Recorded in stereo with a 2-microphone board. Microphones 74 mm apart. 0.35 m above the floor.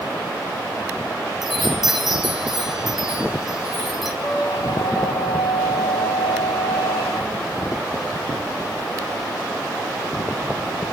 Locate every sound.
1.4 s a chime: 5° right (ahead or behind), 3 m
4.2 s a squeak: 60° left (ahead or behind), 3 m